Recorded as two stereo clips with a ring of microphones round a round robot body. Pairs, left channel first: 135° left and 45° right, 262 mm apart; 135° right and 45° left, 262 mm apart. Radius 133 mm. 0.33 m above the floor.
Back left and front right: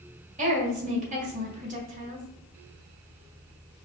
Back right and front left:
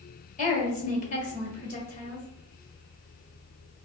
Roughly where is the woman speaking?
Right.